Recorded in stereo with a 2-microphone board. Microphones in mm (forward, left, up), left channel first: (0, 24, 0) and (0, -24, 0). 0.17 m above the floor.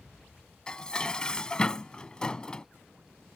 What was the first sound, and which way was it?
Dishes clattering, 20° left (ahead or behind).